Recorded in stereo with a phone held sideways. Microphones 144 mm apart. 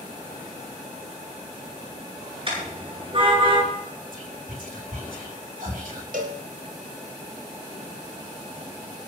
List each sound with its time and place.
2.5 s a car horn: 40° right (ahead or behind), 10 m; by 3.6 s 35° right (ahead or behind), 10 m
4.1 s whispering: 75° right (ahead or behind), 3 m
6.1 s a cowbell: 75° right (ahead or behind), 3 m